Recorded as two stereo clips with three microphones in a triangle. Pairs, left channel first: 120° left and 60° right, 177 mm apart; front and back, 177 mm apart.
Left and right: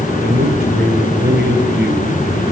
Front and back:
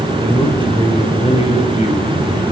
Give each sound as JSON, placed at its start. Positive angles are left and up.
{"t": 0.2, "sound": "a man speaking", "azimuth_deg": -70, "distance_m": 3.0}